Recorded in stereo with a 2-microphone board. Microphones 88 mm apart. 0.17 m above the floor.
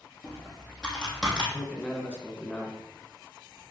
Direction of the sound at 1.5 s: 15° left (ahead or behind).